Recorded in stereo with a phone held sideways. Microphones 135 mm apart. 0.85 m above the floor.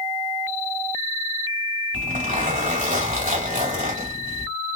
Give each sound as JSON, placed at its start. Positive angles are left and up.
{"t": 1.9, "sound": "a zipper", "side_deg": -85, "distance_m": 2.0}